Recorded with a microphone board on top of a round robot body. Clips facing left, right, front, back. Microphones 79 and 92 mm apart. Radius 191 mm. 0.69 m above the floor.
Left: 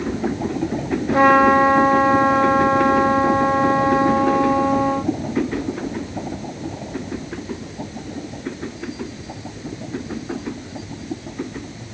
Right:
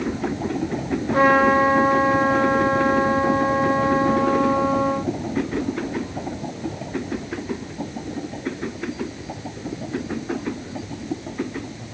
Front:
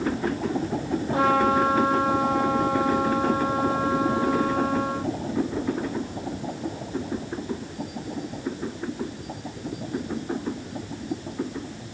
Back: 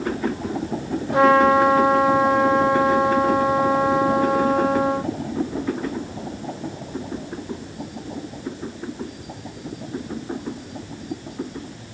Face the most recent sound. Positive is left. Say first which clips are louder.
# left 3 dB, back 7 dB
turn(degrees=180)